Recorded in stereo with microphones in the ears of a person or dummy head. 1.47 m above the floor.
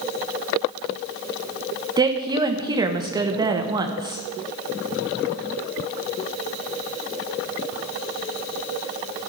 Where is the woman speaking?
20° right (ahead or behind), 1.0 m.